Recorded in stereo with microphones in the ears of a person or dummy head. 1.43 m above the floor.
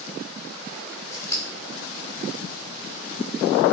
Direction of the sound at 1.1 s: 20° left (ahead or behind).